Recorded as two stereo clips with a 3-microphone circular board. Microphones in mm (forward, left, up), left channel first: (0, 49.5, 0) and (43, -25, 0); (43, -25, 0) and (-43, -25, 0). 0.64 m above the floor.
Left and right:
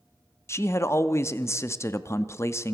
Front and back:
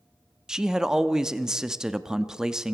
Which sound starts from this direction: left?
A man speaking, at 0.5 s.